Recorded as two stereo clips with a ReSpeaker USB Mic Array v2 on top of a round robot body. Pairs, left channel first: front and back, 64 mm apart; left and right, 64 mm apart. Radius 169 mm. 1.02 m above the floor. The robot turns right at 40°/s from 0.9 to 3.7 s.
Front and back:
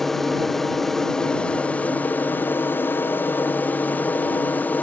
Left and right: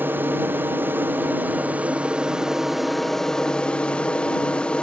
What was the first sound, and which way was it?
An aircraft, 80° right.